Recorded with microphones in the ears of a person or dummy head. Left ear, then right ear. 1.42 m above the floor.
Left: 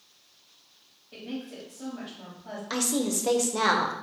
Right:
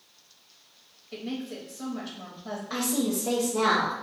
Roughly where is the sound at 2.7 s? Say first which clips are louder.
Left 1 dB; left.